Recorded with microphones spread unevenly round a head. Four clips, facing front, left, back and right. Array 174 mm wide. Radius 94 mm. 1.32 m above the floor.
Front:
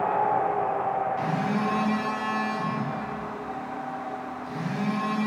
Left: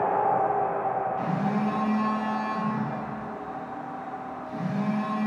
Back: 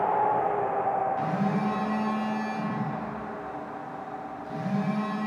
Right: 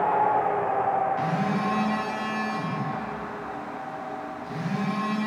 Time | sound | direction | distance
1.2 | a phone buzzing | 100° right | 1.8 m